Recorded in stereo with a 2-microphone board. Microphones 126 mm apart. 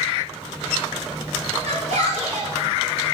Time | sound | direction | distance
1.6 | a shout | 75° right (ahead or behind) | 5.5 m